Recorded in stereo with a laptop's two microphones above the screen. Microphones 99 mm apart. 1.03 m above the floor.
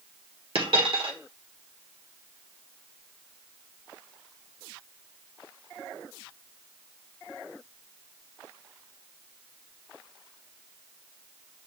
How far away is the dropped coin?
About 1.3 m.